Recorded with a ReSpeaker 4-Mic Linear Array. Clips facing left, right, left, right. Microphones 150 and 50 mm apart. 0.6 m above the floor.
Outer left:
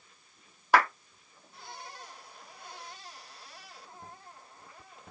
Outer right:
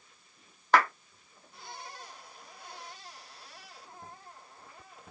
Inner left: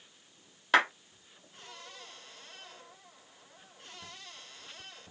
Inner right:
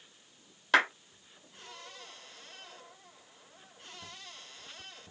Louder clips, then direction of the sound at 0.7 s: Even, even; 10° left (ahead or behind).